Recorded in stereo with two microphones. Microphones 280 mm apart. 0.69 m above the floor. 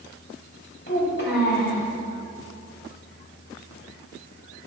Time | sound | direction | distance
0.9 | a child speaking | 40° left (ahead or behind) | 3 m